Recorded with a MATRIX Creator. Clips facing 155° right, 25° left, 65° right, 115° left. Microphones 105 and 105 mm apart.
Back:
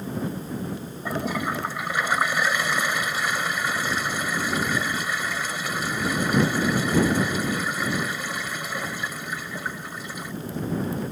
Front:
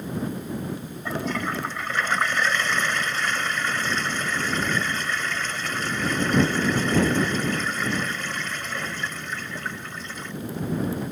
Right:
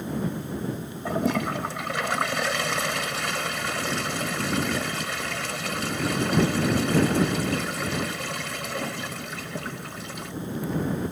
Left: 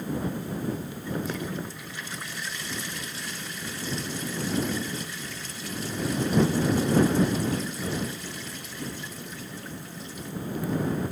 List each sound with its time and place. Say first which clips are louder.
1.1 s a toilet flushing: back 1 dB, right 7 dB; 80° right